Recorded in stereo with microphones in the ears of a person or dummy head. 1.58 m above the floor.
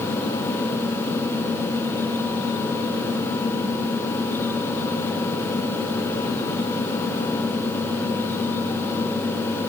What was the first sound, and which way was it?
Only background noise.